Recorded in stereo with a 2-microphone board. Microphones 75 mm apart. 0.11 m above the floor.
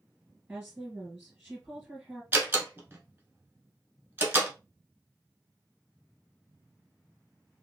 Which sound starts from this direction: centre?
A woman speaking, at 0.5 s.